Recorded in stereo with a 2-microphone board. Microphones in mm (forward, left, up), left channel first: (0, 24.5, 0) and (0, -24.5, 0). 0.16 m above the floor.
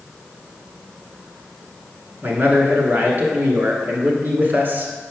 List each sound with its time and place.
2.2 s a man speaking: 45° right (ahead or behind), 1.5 m